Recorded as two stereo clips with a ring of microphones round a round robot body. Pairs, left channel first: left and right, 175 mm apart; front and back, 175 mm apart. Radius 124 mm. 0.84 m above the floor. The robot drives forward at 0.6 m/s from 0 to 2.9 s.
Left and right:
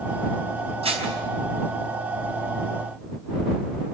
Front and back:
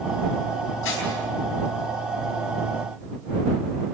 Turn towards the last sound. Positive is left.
turn(degrees=-45)